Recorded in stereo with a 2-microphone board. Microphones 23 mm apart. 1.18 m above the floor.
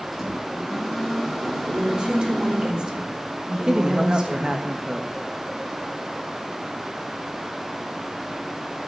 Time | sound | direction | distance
0.1 | a microwave | 10° right (ahead or behind) | 4.5 m
1.7 | a woman speaking | 40° right (ahead or behind) | 4 m
3.7 | a man speaking | 35° right (ahead or behind) | 1.3 m